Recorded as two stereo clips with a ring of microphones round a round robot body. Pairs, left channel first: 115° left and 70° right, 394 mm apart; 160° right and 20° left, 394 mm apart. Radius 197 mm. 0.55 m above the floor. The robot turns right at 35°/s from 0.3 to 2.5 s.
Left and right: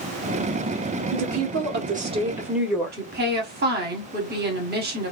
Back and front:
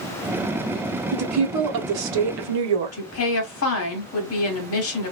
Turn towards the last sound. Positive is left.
turn(degrees=-120)